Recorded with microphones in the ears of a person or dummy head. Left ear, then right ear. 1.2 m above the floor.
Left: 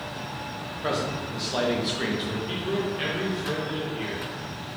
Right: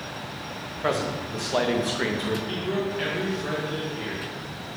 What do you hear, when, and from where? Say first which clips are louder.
0.8 s a man speaking: right 2 dB; 25° right (ahead or behind), 0.8 m
2.5 s a man speaking: even; 5° right (ahead or behind), 1.0 m